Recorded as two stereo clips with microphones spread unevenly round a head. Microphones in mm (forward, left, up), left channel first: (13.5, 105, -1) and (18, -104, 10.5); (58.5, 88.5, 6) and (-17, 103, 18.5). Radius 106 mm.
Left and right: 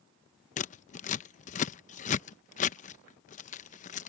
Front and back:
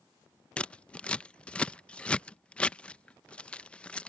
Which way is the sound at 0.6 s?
70° left.